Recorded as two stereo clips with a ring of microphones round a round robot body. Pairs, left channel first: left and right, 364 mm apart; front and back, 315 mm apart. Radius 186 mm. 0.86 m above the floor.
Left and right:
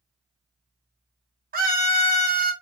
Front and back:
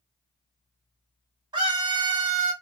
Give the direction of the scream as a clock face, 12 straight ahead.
4 o'clock.